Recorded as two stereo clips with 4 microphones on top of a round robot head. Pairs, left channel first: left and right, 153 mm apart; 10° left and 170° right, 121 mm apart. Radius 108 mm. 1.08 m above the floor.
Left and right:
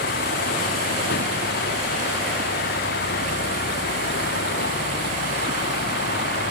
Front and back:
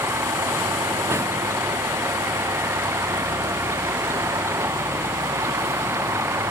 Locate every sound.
0.0 s a vehicle: 120° left